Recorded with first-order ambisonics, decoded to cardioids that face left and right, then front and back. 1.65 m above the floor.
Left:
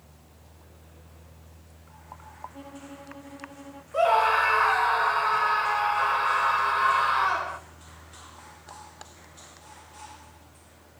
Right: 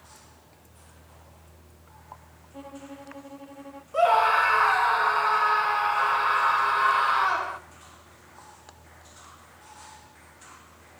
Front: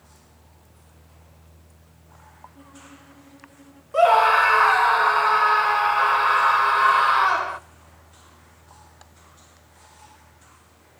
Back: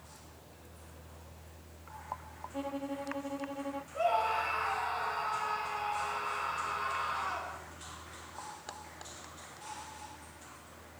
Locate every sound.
2.5 s a violin: 170° right, 0.8 m
3.9 s a scream: 5° right, 1.2 m